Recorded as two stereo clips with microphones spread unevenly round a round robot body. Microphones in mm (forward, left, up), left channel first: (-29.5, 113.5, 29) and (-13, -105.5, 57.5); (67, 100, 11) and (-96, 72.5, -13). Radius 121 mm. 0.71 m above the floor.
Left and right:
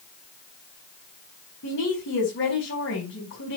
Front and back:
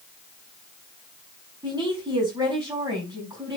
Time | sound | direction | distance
1.6 | a woman speaking | 120° left | 4.5 m